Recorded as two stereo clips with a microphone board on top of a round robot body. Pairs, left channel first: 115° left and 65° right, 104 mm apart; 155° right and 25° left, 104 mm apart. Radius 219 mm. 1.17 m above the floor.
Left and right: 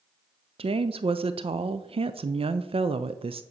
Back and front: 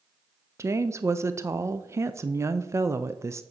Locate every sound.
0.6 s a woman speaking: 40° right, 0.5 m